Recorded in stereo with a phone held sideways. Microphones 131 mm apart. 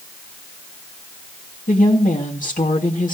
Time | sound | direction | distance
1.7 | a woman speaking | 80° left | 3 m